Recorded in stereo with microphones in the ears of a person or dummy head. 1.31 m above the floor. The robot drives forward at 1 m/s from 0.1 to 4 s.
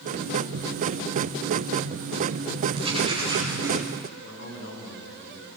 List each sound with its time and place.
2.8 s writing: 30° right (ahead or behind), 3.5 m; by 3.8 s 20° right (ahead or behind), 4.5 m
4.2 s a man speaking: 70° left (ahead or behind), 5.5 m